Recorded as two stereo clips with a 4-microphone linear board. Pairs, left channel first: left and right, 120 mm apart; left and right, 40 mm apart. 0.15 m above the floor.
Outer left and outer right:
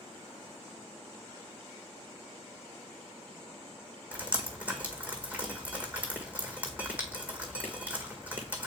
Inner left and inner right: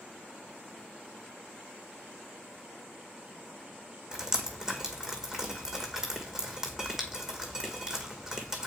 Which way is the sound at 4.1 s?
10° right (ahead or behind).